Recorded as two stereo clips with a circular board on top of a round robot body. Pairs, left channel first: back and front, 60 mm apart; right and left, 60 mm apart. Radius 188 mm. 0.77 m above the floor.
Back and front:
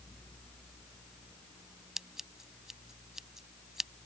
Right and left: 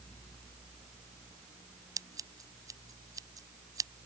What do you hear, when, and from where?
2.0 s scissors: 85° left